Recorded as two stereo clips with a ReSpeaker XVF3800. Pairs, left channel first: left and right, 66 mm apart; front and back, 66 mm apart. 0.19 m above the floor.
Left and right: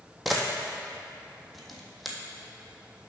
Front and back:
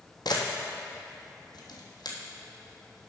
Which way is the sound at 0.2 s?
Straight ahead.